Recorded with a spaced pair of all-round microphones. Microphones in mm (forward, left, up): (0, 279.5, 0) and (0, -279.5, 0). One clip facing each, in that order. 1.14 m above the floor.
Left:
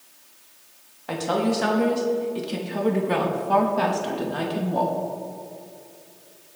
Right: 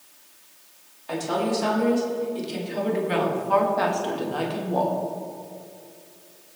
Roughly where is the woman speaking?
Left.